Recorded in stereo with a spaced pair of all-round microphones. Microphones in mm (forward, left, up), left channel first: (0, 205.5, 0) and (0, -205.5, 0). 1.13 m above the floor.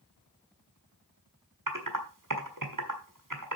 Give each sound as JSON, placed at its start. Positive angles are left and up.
{"t": 1.7, "sound": "typing on a keyboard", "side_deg": -50, "distance_m": 1.6}